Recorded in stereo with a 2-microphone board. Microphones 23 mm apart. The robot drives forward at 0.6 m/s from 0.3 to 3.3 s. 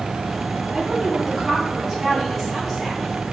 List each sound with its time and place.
0.7 s a woman speaking: 20° right (ahead or behind), 2 m; by 3.0 s 10° right (ahead or behind), 3.5 m